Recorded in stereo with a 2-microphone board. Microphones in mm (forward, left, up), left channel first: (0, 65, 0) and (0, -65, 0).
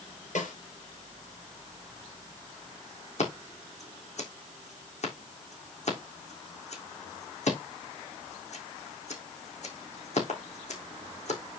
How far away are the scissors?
About 3.5 m.